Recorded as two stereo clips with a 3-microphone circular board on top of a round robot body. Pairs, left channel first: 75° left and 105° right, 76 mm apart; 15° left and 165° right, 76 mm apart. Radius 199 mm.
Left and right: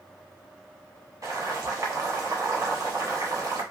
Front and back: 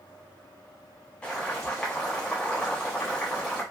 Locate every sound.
1.2 s boiling: 60° right, 1.3 m